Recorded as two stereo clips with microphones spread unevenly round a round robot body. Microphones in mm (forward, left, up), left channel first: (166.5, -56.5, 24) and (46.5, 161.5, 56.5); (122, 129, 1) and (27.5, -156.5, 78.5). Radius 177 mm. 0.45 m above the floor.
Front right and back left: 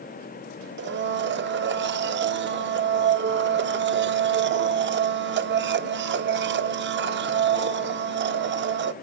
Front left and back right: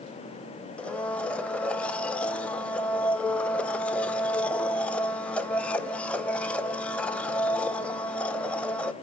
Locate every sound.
0.8 s a blender: 130° left, 0.8 m